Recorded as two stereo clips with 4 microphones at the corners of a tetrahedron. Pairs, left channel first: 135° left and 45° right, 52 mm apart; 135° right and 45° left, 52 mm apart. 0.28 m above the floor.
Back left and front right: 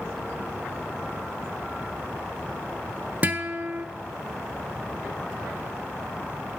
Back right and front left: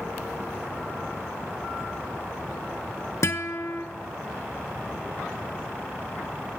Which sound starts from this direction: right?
A guitar, at 3.2 s.